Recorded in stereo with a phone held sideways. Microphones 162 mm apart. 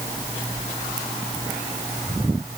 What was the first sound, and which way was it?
Only background noise.